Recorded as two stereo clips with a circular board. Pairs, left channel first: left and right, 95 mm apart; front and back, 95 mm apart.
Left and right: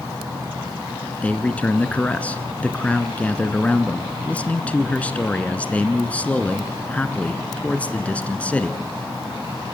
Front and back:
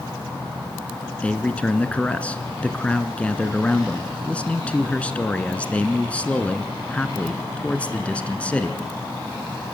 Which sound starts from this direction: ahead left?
A man speaking, at 1.2 s.